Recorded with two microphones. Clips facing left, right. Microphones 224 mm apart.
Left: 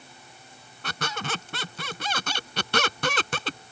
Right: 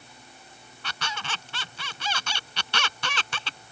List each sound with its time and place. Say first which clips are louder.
0.8 s a squeak: left 5 dB; 50° left (ahead or behind)